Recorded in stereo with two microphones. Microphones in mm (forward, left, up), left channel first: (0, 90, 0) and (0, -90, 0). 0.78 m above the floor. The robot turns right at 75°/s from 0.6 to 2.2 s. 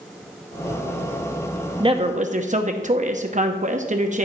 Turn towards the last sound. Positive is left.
turn(degrees=-40)  # may be behind; listen again after turning